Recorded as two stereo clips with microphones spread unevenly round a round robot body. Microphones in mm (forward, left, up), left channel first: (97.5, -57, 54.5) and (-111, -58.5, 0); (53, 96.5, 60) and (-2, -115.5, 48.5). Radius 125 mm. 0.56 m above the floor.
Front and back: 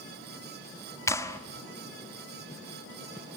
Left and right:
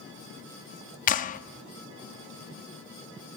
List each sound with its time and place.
1.1 s a clap: 90° left, 1.0 m